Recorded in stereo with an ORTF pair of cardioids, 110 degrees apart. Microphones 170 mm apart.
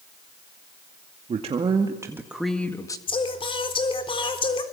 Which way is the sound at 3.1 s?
30° left.